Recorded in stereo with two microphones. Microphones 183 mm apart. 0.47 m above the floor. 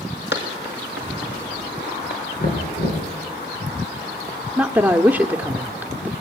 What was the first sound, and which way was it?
Running footsteps, 75° left (ahead or behind).